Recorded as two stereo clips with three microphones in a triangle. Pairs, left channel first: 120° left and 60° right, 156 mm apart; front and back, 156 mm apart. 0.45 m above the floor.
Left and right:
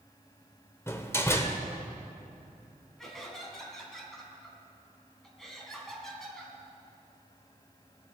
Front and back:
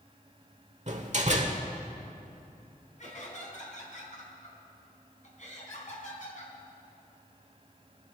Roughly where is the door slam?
Behind.